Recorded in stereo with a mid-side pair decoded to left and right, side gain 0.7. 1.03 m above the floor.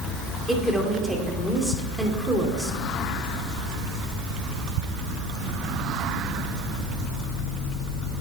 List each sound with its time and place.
0.5 s a woman speaking: straight ahead, 3 m